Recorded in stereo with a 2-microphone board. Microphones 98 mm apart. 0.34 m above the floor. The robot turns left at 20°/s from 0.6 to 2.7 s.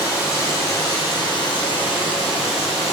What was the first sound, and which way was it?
Running water, 145° left.